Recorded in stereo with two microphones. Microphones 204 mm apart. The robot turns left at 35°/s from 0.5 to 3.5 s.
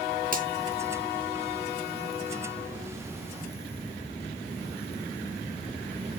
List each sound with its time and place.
0.3 s a finger snap: 45° right (ahead or behind), 2.5 m